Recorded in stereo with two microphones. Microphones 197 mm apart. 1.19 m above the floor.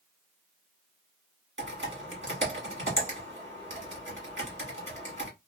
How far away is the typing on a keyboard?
About 1.2 m.